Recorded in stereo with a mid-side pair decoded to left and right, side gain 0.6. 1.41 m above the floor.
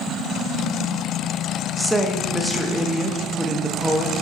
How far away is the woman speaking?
About 0.5 m.